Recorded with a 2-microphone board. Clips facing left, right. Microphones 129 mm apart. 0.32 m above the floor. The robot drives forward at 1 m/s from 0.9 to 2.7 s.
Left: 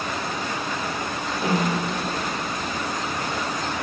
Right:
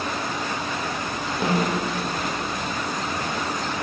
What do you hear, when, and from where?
1.4 s a snare drum: 20° right (ahead or behind), 3 m; by 1.9 s 25° right (ahead or behind), 2.5 m